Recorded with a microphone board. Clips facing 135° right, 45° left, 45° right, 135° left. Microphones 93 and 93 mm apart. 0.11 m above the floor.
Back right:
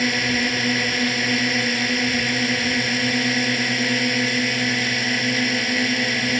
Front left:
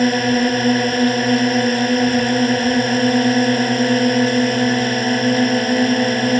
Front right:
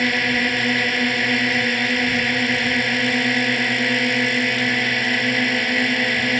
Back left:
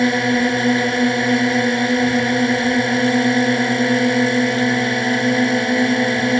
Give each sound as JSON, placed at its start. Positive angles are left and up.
{"t": 0.0, "sound": "a drone", "azimuth_deg": 80}